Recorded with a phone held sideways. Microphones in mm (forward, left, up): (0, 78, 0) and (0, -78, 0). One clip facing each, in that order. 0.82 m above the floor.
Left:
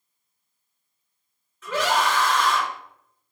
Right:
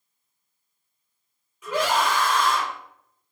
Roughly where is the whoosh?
I don't hear a whoosh.